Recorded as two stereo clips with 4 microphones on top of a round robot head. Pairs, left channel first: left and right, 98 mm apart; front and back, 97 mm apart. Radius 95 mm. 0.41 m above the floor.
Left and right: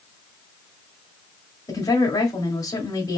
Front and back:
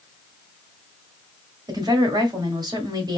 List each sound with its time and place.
1.7 s a woman speaking: 145° left, 2.0 m